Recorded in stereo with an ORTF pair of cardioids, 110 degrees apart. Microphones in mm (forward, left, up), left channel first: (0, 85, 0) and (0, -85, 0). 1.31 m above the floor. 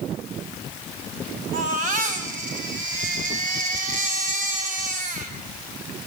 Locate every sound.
1.5 s a baby crying: 55° right, 6.5 m